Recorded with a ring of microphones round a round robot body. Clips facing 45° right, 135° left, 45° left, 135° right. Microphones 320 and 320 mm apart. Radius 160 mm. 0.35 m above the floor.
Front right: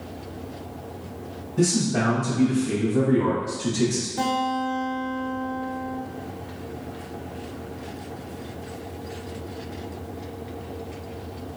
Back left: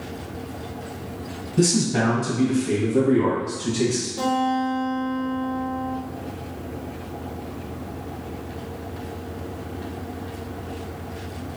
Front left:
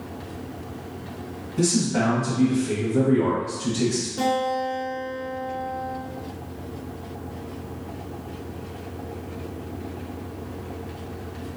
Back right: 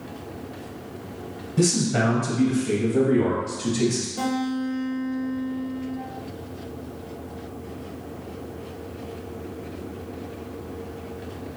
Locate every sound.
1.6 s a man speaking: 165° right, 1.9 m; by 4.1 s 125° right, 3 m
4.2 s a guitar: 80° right, 1.6 m